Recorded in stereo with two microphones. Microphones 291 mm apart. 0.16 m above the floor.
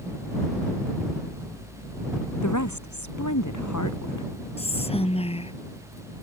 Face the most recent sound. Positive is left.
turn(degrees=20)  # may be behind; listen again after turning